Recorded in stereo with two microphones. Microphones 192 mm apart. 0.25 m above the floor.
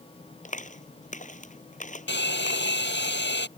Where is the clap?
40° left (ahead or behind).